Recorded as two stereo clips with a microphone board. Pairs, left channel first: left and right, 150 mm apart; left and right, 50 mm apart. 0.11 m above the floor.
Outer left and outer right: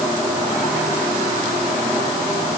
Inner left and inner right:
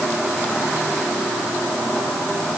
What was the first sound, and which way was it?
Only background noise.